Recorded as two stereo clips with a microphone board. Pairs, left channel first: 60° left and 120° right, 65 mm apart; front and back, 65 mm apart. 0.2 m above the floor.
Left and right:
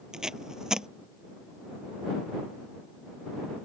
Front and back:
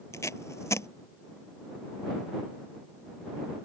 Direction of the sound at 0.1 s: 40° right.